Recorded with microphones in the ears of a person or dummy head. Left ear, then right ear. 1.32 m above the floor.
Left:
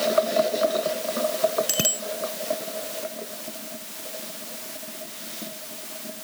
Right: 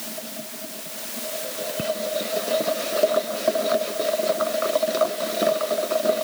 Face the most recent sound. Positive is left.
turn(degrees=75)  # may be behind; listen again after turning